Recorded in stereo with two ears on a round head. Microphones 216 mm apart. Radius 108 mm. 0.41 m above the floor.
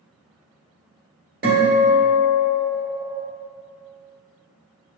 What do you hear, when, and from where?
1.4 s a guitar: 40° right (ahead or behind), 1.6 m